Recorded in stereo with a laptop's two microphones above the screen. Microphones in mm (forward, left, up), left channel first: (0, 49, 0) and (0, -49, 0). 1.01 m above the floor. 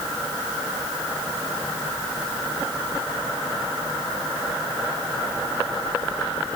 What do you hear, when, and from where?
Only background noise.